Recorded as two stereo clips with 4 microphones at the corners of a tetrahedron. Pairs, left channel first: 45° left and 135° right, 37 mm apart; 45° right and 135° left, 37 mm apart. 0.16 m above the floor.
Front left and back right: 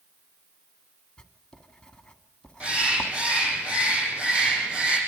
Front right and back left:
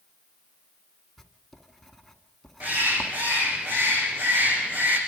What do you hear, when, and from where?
1.2 s writing: 30° left, 1.6 m
2.6 s a bird: 170° left, 6 m